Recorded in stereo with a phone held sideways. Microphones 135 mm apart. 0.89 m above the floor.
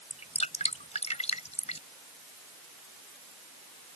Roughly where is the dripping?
Left.